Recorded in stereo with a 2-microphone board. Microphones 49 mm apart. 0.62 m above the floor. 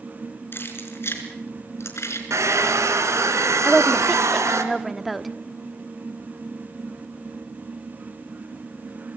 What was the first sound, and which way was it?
Keys jangling, 45° left (ahead or behind).